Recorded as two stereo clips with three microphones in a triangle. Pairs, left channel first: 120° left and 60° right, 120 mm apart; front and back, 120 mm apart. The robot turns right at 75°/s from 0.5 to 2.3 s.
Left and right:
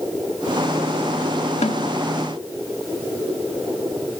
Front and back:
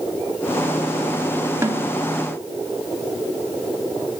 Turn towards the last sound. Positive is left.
turn(degrees=170)